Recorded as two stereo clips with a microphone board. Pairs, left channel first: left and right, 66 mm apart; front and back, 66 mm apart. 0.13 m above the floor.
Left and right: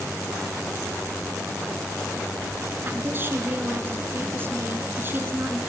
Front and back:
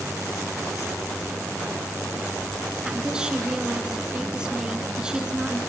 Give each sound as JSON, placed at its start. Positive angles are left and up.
{"t": 2.9, "sound": "a woman speaking", "azimuth_deg": -110, "distance_m": 1.8}